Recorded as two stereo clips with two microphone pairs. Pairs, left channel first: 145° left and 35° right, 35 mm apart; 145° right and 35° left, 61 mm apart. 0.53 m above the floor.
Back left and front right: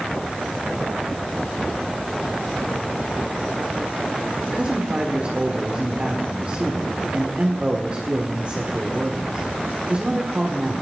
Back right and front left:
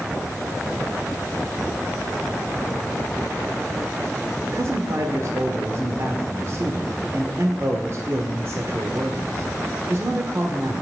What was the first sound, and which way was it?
A man speaking, 5° left.